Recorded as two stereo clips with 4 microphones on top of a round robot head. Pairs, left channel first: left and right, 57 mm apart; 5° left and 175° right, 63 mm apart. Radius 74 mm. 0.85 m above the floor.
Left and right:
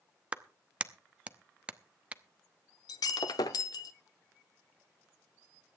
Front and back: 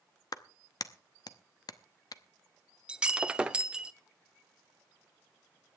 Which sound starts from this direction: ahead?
A clap, at 0.3 s.